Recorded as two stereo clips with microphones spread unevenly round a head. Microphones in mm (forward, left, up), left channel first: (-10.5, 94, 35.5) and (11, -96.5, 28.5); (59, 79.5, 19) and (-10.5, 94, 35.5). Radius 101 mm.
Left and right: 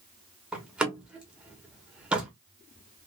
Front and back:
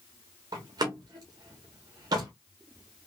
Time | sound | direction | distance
0.5 | a door slam | 170° right | 0.9 m